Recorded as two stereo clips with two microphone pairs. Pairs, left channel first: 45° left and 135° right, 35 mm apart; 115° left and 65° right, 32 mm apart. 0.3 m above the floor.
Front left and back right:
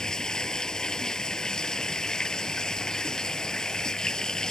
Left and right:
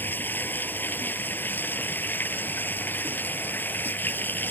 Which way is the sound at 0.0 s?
120° left.